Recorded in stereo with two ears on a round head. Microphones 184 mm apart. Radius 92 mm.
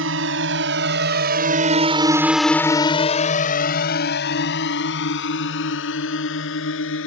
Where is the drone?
70° right (ahead or behind); by 7.1 s 65° left (ahead or behind).